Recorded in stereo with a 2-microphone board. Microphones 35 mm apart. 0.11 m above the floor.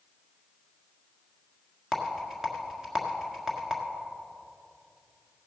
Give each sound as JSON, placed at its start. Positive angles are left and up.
{"t": 1.9, "sound": "a rattle", "side_deg": -10, "distance_m": 1.4}